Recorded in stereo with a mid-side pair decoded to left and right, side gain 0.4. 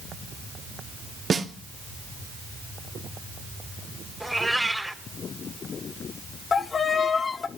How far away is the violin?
About 1.5 m.